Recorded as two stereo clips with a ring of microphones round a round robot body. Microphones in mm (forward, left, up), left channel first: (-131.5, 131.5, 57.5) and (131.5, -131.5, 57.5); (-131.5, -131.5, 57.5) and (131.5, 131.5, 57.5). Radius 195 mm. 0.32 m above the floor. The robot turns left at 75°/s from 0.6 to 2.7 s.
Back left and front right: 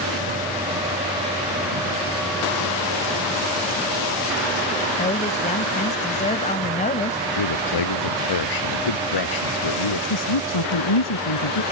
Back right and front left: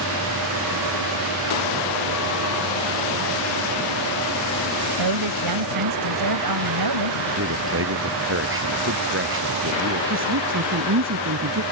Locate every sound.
5.0 s a woman speaking: 65° left
7.4 s a man speaking: 105° left
10.1 s a woman speaking: 100° left